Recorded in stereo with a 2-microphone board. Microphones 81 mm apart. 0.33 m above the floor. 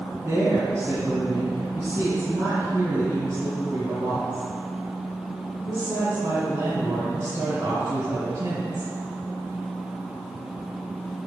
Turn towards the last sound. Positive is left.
turn(degrees=-40)  # may be behind; listen again after turning